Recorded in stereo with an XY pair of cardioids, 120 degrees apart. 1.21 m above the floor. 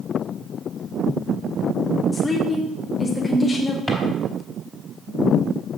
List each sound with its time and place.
2.1 s a woman speaking: 15° left, 1.3 m
3.9 s a drawer: straight ahead, 3.5 m